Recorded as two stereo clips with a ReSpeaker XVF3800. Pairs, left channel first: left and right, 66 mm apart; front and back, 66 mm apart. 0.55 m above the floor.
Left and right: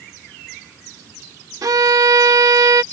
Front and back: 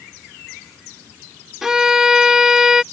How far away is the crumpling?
No crumpling in this recording.